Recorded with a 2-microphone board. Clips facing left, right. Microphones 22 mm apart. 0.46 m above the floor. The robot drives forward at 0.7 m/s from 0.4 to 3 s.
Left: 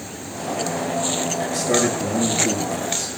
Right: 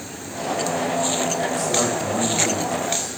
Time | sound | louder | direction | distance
1.5 | a man speaking | left 1 dB | 75° left (ahead or behind) | 9 m